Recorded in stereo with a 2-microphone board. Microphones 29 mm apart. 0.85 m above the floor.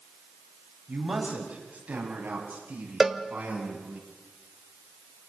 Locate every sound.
0.9 s a man speaking: 65° right (ahead or behind), 6 m; by 4.0 s 75° right (ahead or behind), 9 m
3.0 s a cowbell: 10° right (ahead or behind), 1.1 m